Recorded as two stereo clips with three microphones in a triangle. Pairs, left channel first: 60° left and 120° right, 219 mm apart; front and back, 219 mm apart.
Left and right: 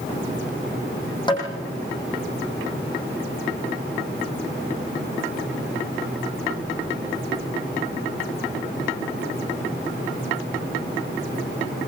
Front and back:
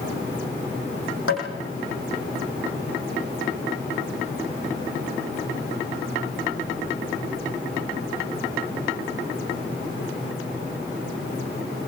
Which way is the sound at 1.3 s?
10° right.